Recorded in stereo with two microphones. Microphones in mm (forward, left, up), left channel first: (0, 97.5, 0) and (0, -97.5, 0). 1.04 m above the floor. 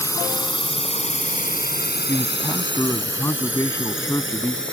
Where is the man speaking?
15° left (ahead or behind).